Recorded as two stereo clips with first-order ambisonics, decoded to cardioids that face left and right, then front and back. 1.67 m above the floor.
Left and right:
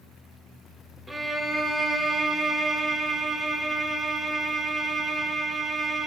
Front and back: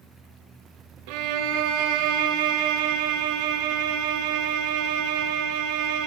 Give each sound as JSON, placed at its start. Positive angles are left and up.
{"t": 1.1, "sound": "a violin", "azimuth_deg": -175, "distance_m": 0.6}